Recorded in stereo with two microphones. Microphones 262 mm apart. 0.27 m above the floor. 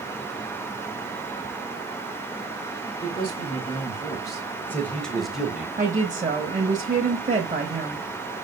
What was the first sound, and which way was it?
A man speaking, 20° left (ahead or behind).